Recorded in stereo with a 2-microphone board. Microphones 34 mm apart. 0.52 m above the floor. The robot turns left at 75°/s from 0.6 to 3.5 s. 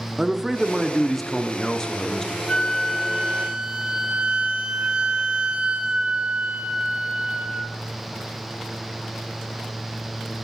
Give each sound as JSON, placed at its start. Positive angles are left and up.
{"t": 0.2, "sound": "a man speaking", "side_deg": -10, "distance_m": 0.6}
{"t": 2.5, "sound": "a flute", "azimuth_deg": 45, "distance_m": 1.0}